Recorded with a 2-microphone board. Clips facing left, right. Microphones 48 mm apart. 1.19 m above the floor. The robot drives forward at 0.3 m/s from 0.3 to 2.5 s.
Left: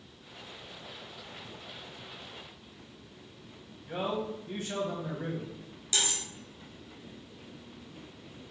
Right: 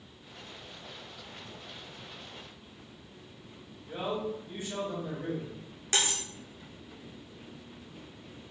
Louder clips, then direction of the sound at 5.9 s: Right 2 dB; 45° right (ahead or behind).